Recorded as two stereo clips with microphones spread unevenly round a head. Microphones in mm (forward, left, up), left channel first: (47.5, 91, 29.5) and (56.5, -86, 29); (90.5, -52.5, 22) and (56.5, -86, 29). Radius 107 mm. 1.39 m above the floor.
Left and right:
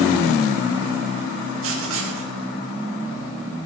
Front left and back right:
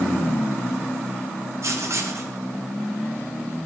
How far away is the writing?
About 1.6 m.